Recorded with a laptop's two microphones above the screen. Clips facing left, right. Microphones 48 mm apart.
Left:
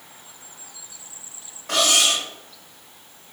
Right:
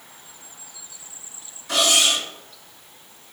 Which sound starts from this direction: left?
Cutlery clinking, at 1.7 s.